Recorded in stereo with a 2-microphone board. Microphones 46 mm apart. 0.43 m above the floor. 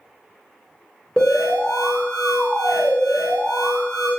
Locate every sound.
1.2 s an alarm: 15° left (ahead or behind), 1.7 m